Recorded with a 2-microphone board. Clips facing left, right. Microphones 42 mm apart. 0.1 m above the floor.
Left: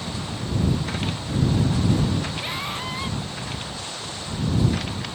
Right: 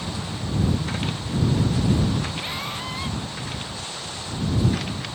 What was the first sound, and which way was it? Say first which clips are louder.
A scream: left 1 dB; 5° left (ahead or behind).